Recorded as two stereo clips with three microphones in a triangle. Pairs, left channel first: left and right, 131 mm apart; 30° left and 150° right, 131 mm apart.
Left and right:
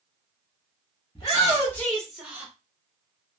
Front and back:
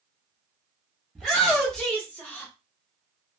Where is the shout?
125° left, 1.2 m; by 2.5 s 35° right, 1.1 m.